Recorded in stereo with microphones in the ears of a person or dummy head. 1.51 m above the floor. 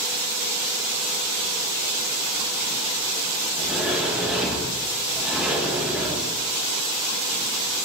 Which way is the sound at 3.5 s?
5° right (ahead or behind).